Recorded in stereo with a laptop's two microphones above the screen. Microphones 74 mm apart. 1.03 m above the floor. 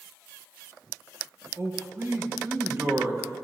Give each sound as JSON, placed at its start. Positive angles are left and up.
{"t": 1.6, "sound": "a man speaking", "side_deg": -40, "distance_m": 1.0}